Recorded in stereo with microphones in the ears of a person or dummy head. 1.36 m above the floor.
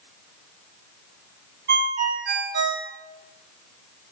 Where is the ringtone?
55° right (ahead or behind), 2.5 m.